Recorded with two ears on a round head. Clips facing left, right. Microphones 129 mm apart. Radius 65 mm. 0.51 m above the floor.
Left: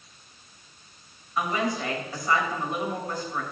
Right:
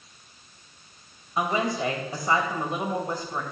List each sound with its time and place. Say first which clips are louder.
1.4 s a woman speaking: right 2 dB; 20° right (ahead or behind), 2.5 m